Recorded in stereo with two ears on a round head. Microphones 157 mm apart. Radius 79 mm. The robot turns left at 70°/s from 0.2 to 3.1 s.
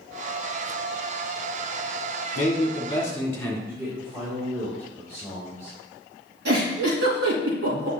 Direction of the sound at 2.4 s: 70° left.